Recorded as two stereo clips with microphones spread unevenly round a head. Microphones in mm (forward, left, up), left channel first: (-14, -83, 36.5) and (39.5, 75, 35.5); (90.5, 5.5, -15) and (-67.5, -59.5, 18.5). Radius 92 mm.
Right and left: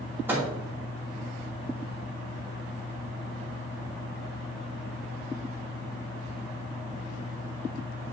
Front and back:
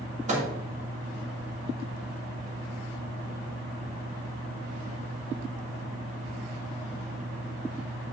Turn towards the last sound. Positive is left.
turn(degrees=150)